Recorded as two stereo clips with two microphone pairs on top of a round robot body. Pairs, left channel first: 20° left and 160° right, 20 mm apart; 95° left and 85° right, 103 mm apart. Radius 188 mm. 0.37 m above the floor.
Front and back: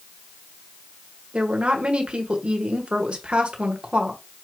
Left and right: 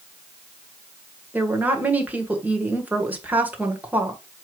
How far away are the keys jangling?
No keys jangling in this recording.